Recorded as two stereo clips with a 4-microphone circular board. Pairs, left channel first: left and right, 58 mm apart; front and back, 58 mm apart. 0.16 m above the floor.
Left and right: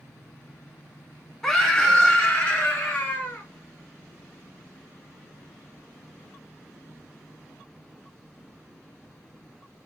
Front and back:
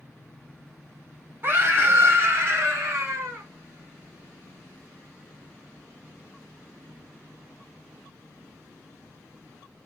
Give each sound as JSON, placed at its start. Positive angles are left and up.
{"t": 1.4, "sound": "a scream", "azimuth_deg": 170, "distance_m": 2.0}